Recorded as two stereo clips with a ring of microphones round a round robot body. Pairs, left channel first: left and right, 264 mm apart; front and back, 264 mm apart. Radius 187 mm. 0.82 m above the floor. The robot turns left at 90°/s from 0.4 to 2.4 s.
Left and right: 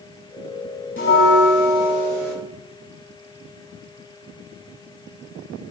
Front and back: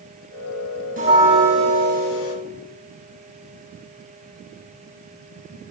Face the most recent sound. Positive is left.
turn(degrees=-5)